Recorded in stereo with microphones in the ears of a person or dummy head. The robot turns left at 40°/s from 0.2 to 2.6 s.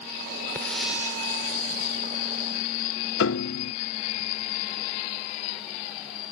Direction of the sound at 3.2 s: 80° left.